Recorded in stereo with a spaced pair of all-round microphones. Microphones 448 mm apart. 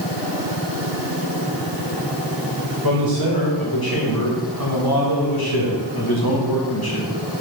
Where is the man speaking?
50° left (ahead or behind), 4 m; by 7.1 s 55° left (ahead or behind), 2 m.